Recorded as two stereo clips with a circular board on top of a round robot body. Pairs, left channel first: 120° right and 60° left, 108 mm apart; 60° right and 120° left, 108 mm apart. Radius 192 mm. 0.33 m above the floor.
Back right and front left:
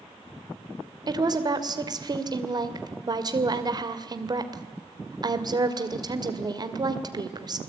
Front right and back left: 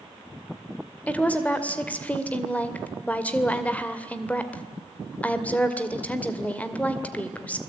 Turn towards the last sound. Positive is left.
turn(degrees=15)